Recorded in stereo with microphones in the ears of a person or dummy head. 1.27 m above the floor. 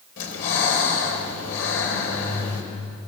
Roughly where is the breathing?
Left.